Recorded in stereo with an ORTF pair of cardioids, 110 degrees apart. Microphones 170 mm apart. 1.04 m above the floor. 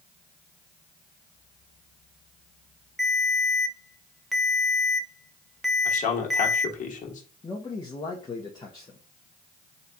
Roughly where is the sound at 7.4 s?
Ahead left.